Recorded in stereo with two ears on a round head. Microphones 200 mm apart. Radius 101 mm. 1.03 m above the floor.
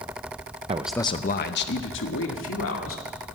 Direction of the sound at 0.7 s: 30° right (ahead or behind).